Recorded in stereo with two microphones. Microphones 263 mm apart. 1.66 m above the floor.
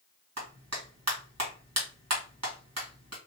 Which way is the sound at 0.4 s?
80° right.